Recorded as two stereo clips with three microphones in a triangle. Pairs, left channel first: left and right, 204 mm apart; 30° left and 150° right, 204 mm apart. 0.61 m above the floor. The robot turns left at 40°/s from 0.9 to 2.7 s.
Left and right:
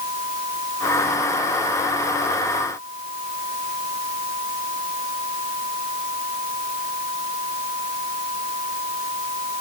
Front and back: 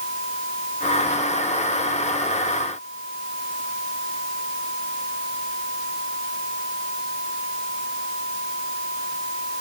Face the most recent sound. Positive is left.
No sound to turn to.